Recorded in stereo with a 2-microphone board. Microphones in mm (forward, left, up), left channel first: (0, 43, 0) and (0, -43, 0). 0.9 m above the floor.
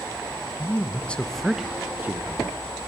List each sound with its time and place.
0.6 s a man speaking: 30° left (ahead or behind), 1.0 m; by 2.5 s 30° right (ahead or behind), 1.1 m